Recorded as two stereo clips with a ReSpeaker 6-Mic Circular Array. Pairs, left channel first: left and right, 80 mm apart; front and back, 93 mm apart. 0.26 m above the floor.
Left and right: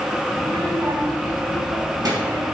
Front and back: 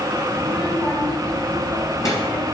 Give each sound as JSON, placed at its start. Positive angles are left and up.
{"t": 0.3, "sound": "a child speaking", "azimuth_deg": -50, "distance_m": 3.5}